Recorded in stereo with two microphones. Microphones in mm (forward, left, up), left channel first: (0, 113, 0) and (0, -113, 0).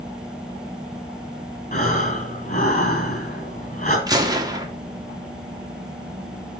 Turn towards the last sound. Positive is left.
turn(degrees=-15)  # may be behind; listen again after turning